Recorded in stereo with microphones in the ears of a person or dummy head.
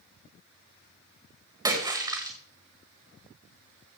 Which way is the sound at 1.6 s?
20° right (ahead or behind).